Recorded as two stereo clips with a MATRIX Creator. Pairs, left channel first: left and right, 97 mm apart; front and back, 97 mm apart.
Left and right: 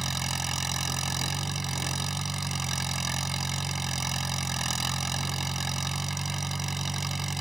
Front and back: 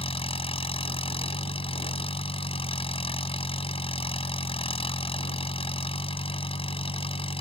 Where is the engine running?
5° right.